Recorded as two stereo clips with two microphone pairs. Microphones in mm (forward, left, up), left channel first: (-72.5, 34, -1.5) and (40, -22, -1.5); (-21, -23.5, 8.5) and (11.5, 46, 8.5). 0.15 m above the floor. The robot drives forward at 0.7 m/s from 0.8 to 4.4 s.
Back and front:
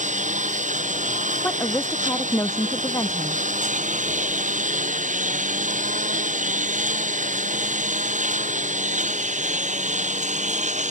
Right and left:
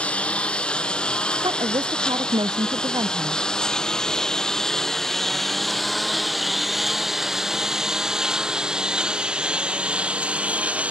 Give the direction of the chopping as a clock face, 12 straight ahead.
No chopping in this recording.